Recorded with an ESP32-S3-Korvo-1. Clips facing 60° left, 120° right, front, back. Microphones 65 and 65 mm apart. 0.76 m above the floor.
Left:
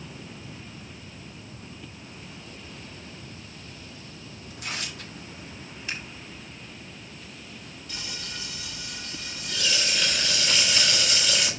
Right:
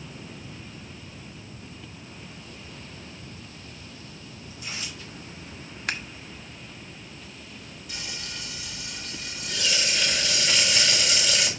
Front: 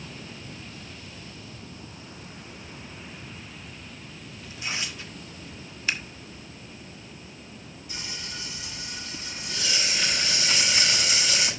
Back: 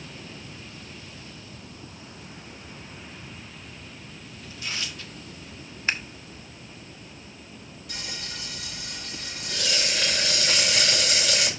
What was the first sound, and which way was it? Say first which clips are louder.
Tearing paper: left 3 dB, front 1 dB; 65° left.